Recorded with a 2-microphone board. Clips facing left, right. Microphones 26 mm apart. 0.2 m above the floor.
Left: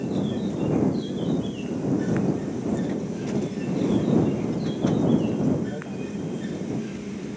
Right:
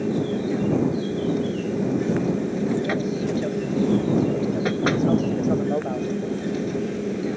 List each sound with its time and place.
0.0 s an aircraft: 65° right (ahead or behind)